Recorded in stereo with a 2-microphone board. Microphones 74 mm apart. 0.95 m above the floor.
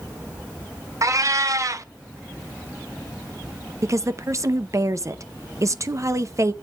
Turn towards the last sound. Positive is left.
turn(degrees=-45)  # may be behind; listen again after turning